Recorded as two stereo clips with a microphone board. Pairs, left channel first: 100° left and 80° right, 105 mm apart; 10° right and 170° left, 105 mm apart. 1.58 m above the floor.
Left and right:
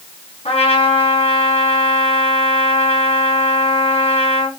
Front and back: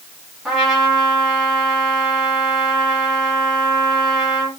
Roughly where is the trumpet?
Left.